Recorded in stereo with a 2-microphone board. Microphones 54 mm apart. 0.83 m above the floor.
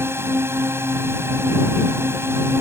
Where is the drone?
50° right (ahead or behind).